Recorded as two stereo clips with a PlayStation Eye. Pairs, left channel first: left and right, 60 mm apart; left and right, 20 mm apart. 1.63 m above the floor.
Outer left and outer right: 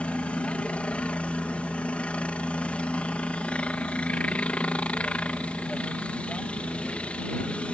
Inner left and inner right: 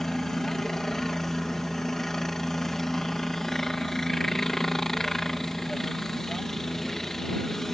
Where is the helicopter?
20° left (ahead or behind).